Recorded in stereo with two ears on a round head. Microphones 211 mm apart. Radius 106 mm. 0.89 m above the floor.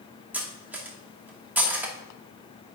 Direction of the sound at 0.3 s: 5° right (ahead or behind).